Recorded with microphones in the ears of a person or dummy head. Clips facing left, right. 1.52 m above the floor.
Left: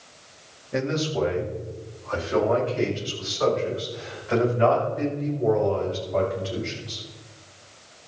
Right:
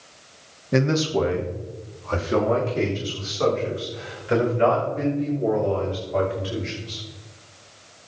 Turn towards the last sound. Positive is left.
turn(degrees=-30)  # may be behind; listen again after turning